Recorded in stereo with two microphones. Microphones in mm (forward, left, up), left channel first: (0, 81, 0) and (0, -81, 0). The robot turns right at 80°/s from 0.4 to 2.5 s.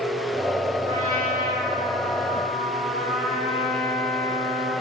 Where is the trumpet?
145° right, 3.5 m; by 4.7 s 10° right, 3.5 m.